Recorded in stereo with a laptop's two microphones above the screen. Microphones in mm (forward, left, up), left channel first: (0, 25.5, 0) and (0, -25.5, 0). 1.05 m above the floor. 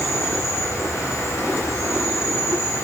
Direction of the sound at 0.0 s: 55° left (ahead or behind).